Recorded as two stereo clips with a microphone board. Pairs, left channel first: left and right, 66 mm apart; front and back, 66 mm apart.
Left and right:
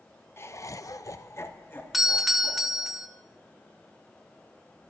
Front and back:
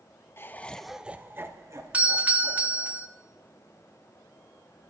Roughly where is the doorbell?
Behind.